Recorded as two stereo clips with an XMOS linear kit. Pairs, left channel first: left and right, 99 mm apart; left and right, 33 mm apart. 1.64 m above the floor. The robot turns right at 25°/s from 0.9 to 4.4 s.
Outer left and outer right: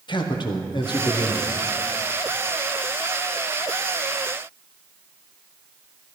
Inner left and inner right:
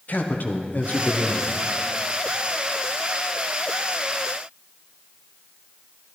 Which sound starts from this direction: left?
A man speaking, at 0.1 s.